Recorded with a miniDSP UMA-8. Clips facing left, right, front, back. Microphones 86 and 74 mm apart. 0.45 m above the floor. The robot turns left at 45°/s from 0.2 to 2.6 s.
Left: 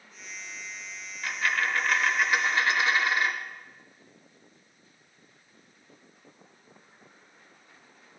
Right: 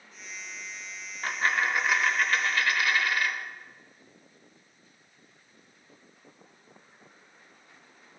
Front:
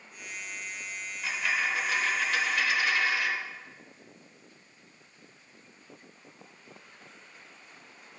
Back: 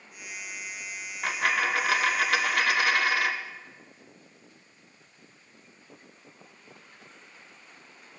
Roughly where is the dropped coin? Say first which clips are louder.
Right 1 dB, back 4 dB; behind right.